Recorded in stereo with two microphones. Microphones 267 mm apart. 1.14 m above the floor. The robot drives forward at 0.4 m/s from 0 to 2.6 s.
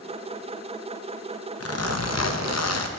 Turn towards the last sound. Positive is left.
turn(degrees=70)  # may be behind; listen again after turning